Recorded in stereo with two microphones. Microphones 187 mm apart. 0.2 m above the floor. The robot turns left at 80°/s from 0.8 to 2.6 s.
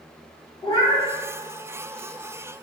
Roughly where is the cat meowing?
Left.